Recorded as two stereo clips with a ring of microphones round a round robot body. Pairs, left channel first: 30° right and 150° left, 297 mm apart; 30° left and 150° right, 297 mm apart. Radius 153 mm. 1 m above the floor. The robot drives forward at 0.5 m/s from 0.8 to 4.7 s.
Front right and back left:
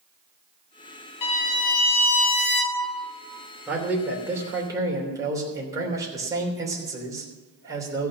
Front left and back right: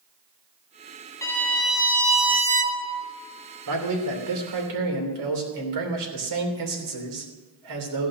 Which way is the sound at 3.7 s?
125° right.